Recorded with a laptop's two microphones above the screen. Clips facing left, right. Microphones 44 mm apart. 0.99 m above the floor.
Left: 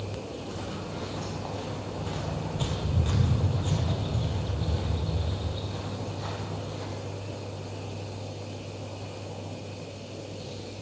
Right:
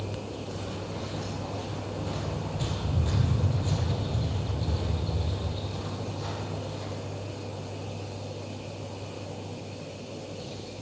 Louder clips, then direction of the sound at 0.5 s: Even; 45° left (ahead or behind).